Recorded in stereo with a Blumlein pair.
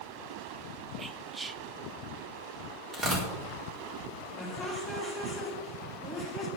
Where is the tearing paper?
20° right, 4.5 m.